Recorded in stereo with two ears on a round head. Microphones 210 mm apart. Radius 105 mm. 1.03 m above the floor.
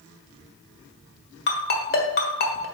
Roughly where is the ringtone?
Left.